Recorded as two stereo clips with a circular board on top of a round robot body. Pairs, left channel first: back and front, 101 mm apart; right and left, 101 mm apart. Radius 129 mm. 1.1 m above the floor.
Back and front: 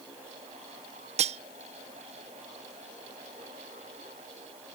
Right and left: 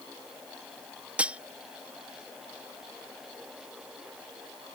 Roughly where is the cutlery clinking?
Ahead.